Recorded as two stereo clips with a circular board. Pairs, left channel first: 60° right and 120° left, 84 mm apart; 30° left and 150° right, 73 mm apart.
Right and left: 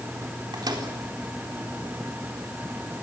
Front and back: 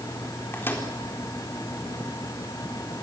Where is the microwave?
90° left, 4 m.